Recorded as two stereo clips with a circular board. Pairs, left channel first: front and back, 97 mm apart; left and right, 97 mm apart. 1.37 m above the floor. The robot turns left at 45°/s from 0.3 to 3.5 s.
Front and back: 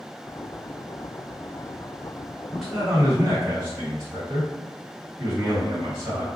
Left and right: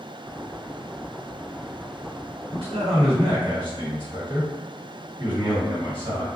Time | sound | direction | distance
2.5 | a man speaking | 85° right | 1.6 m